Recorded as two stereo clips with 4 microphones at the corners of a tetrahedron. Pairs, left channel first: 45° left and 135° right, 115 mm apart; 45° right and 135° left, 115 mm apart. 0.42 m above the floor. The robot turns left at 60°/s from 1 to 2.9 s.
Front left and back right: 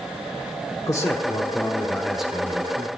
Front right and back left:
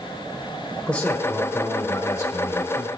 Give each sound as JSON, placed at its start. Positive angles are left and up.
{"t": 0.9, "sound": "a man speaking", "azimuth_deg": 25, "distance_m": 1.1}